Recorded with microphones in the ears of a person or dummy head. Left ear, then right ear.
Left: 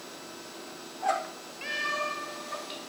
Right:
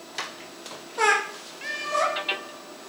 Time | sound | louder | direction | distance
1.6 | a cat meowing | right 5 dB | 5° right (ahead or behind) | 8 m